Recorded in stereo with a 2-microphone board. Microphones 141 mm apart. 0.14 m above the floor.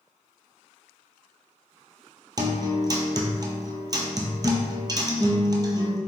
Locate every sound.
2.4 s a guitar: 30° right (ahead or behind), 0.5 m